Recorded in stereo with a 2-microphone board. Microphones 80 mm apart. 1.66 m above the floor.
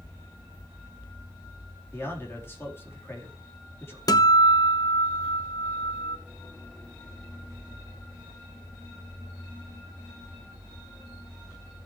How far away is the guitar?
About 0.9 m.